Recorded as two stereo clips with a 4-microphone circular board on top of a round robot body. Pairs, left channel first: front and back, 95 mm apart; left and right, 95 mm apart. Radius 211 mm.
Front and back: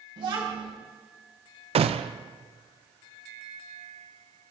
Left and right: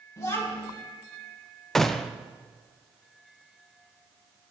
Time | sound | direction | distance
0.2 | a child speaking | 145° left | 5.5 m
1.8 | a gunshot | 175° left | 0.7 m